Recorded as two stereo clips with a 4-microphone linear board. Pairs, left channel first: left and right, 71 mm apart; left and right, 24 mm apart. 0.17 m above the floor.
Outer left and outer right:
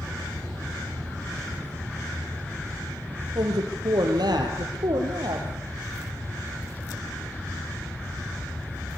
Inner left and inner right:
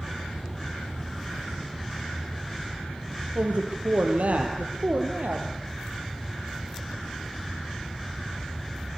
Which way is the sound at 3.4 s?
75° right (ahead or behind).